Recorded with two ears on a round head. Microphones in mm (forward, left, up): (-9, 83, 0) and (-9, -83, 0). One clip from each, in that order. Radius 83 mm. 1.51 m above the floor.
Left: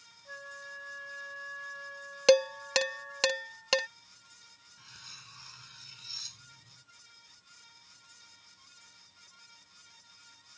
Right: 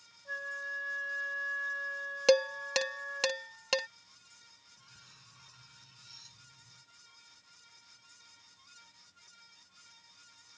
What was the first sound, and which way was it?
A flute, 50° right (ahead or behind).